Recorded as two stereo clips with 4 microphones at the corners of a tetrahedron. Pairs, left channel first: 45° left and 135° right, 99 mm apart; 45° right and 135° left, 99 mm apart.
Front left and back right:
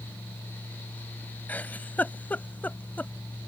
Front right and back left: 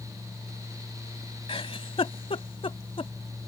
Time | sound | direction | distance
1.5 | a giggle | 30° right | ?